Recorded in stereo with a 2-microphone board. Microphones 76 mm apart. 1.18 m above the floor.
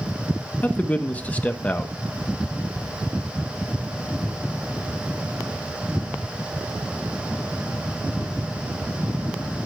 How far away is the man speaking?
About 1.0 m.